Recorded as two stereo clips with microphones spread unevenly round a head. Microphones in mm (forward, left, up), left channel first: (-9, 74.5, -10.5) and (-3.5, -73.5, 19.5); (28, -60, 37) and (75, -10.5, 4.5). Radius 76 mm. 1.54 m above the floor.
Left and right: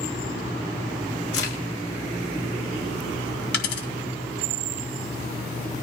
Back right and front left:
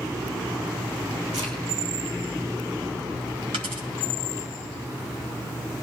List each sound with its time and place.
1.3 s a crack: 100° left, 6.5 m
3.5 s a dropped coin: 105° left, 2.5 m